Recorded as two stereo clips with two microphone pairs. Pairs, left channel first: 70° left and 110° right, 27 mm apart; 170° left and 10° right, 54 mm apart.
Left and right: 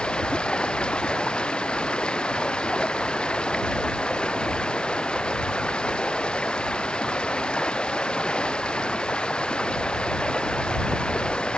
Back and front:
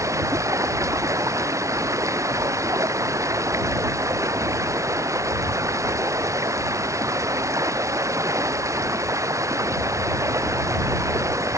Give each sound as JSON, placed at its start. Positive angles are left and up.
{"t": 0.0, "sound": "running water", "azimuth_deg": 20}